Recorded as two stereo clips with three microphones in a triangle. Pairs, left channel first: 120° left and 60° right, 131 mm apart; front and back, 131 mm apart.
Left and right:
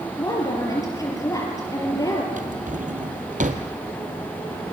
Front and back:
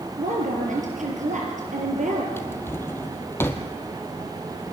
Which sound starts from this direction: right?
A drawer, at 2.4 s.